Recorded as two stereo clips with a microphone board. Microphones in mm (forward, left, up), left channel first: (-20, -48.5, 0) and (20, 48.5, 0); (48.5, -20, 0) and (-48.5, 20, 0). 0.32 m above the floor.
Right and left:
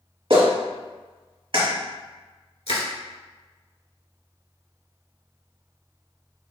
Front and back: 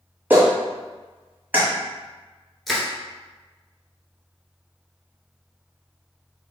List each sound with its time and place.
0.3 s a clap: 90° left, 1.4 m
2.7 s crushing: 110° right, 1.4 m